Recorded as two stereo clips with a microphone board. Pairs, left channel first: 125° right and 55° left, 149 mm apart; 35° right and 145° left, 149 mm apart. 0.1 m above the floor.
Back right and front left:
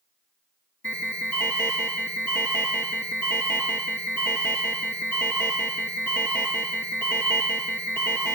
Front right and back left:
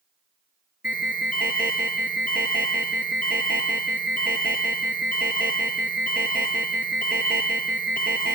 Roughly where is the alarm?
Ahead right.